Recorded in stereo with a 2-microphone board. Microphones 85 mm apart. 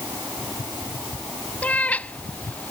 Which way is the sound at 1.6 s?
20° left (ahead or behind).